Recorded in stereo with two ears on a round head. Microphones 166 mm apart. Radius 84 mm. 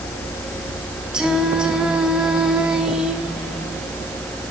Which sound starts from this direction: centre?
Singing, at 1.1 s.